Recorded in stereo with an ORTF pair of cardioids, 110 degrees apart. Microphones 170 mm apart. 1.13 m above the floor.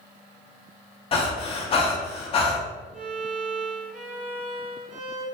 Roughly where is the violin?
Ahead right.